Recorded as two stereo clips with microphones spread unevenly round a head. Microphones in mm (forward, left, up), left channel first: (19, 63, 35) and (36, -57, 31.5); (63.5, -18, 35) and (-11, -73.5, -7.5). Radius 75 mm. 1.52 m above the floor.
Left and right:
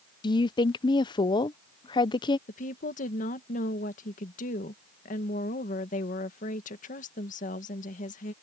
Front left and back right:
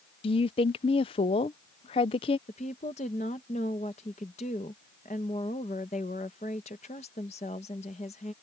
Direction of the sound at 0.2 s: 45° left.